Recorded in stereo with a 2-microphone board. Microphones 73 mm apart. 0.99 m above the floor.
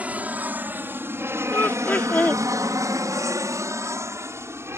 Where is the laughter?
25° left (ahead or behind).